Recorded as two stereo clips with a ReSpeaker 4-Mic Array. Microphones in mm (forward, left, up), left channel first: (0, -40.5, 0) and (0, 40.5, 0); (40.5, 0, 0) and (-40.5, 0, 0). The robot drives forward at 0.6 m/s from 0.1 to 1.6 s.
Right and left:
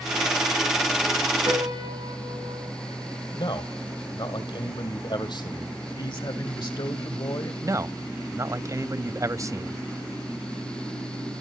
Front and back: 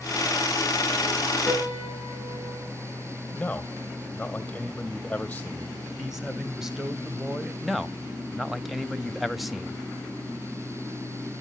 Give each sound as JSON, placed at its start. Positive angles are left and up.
{"t": 1.5, "sound": "a piano", "azimuth_deg": 120, "distance_m": 4.0}
{"t": 3.4, "sound": "a man speaking", "azimuth_deg": -75, "distance_m": 3.0}
{"t": 6.0, "sound": "a man speaking", "azimuth_deg": -95, "distance_m": 1.8}
{"t": 7.6, "sound": "a man speaking", "azimuth_deg": 90, "distance_m": 0.7}